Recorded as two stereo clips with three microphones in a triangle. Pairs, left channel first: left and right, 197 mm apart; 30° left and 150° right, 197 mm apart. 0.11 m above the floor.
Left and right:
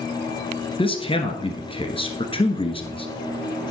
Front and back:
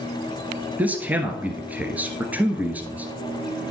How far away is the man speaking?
About 1.3 m.